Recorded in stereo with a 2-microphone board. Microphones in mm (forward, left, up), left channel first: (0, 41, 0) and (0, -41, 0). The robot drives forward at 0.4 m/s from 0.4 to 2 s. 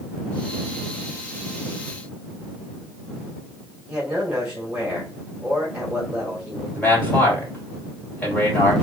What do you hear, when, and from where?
3.9 s a man speaking: 10° right (ahead or behind), 2 m
6.7 s a man speaking: 15° left (ahead or behind), 3.5 m